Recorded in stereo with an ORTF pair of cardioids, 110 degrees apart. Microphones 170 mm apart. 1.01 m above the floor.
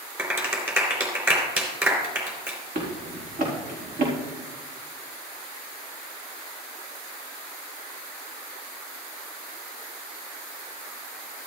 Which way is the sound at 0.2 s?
15° right.